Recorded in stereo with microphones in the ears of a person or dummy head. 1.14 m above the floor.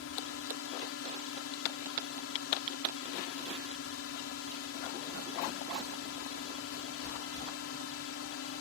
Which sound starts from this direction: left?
A drone, at 0.0 s.